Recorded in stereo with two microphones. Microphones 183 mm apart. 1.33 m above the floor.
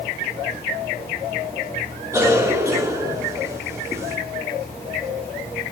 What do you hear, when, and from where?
2.1 s a cough: 15° right (ahead or behind), 2.5 m